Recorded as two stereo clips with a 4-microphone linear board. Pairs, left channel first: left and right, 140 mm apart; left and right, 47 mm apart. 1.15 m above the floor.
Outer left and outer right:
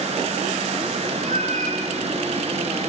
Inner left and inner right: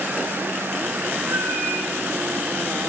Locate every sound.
1.2 s a cat meowing: 65° right (ahead or behind), 8.5 m